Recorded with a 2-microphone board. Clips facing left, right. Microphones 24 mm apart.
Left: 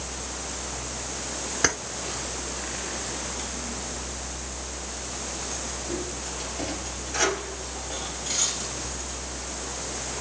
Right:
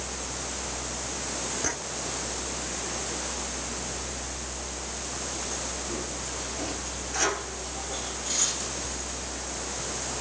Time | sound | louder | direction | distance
1.6 | keys jangling | left 5 dB | 65° left (ahead or behind) | 1.6 m